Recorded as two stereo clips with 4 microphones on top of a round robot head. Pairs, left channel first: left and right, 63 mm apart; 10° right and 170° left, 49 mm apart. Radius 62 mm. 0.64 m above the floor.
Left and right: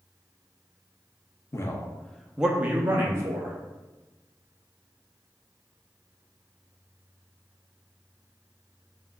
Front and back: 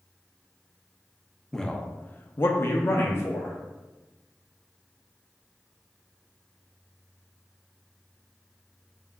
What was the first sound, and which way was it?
A man speaking, 70° left.